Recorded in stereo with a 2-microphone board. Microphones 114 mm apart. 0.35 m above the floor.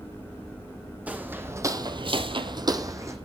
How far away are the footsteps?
About 1.1 m.